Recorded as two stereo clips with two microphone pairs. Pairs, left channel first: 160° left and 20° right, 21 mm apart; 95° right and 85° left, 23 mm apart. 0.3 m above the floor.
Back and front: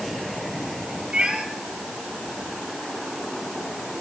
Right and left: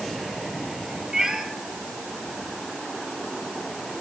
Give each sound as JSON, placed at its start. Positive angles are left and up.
{"t": 1.1, "sound": "a cat meowing", "azimuth_deg": 20, "distance_m": 3.5}